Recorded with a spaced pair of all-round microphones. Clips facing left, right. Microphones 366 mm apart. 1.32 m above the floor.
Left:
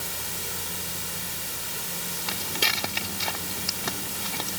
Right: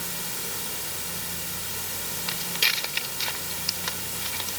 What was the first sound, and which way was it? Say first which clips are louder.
Footsteps: left 4 dB; 60° left (ahead or behind).